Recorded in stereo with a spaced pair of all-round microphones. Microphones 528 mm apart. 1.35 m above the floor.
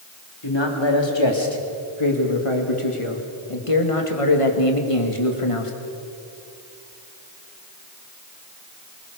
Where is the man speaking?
50° left (ahead or behind), 4 m; by 5.7 s 70° left (ahead or behind), 2.5 m.